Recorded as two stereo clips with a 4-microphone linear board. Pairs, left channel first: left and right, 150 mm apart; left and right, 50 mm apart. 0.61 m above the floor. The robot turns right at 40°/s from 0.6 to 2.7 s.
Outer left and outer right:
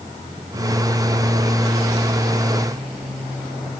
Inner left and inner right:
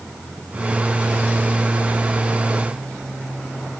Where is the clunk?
I don't hear a clunk.